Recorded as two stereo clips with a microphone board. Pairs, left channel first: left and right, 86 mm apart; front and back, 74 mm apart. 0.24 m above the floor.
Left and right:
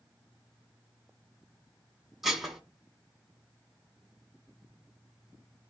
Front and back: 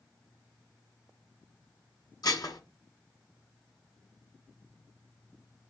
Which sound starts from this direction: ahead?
Dishes clattering, at 2.2 s.